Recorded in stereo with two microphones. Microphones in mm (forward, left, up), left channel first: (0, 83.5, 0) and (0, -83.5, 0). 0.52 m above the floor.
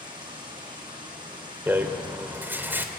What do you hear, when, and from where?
0.0 s running water: 30° right (ahead or behind), 7.5 m
1.7 s a rattle: 10° right (ahead or behind), 2.5 m